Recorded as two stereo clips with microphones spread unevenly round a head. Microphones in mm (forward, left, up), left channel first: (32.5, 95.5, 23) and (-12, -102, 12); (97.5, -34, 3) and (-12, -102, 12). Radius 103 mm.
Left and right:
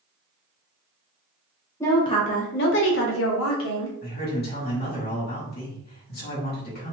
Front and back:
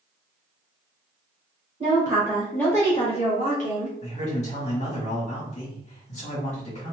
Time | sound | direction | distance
1.8 | a woman speaking | 155° left | 0.8 m
4.0 | a man speaking | 40° left | 1.4 m